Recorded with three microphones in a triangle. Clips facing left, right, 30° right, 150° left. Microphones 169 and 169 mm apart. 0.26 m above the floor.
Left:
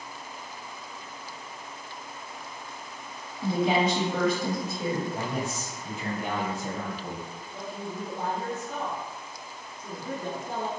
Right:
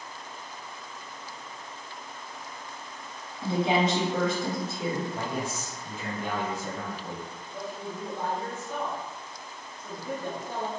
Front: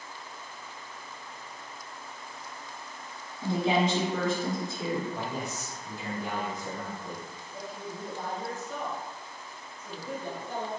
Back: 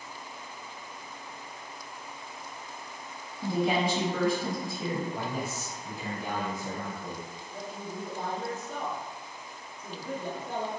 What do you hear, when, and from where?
3.4 s a woman speaking: 70° right, 1.1 m
5.1 s a man speaking: 85° left, 1.1 m
7.5 s a man speaking: 140° left, 1.6 m